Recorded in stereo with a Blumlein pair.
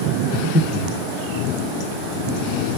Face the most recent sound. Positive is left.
turn(degrees=10)